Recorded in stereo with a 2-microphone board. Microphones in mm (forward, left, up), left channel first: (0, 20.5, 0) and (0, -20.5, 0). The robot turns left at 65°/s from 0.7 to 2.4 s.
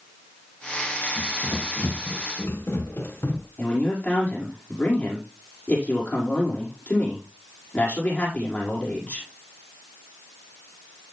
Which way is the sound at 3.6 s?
35° left (ahead or behind).